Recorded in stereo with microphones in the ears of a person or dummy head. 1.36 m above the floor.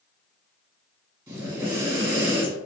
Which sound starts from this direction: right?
Breathing, at 1.3 s.